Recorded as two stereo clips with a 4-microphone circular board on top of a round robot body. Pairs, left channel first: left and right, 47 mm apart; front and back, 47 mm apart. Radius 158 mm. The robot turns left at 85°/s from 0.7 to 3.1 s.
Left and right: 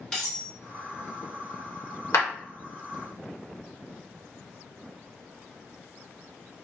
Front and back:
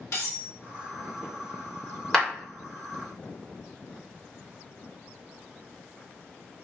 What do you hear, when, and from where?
0.1 s cutlery clinking: 10° left, 1.7 m
2.1 s a clap: 80° left, 2.5 m; by 2.3 s 65° left, 2.5 m